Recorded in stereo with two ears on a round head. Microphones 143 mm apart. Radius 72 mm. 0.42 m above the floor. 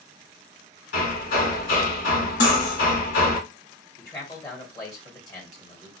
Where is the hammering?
60° left (ahead or behind), 1.9 m.